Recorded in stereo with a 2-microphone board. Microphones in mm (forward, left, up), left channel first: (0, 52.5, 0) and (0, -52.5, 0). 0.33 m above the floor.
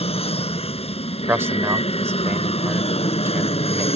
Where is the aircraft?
70° left (ahead or behind).